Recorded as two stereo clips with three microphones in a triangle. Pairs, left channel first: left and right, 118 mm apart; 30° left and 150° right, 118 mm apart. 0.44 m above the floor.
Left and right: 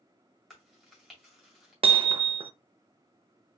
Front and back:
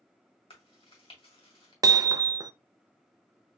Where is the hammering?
100° right, 0.5 m.